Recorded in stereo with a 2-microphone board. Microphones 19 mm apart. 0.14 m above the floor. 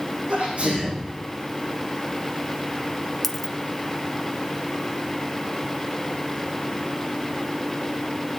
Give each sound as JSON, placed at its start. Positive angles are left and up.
{"t": 0.3, "sound": "a sneeze", "side_deg": -80, "distance_m": 7.0}
{"t": 3.2, "sound": "a dropped coin", "side_deg": 5, "distance_m": 0.7}